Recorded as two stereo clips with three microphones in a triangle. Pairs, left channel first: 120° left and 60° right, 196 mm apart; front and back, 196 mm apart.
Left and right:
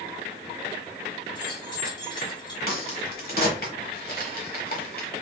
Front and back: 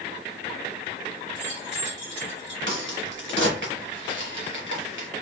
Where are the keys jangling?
175° right, 1.7 m.